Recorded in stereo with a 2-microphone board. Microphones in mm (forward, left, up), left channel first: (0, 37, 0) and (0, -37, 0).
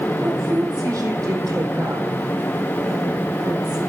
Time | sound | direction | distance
0.2 | a woman speaking | 45° right (ahead or behind) | 4.5 m